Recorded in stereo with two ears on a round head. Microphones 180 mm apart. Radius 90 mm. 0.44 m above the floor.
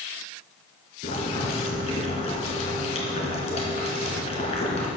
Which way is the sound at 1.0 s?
35° left (ahead or behind).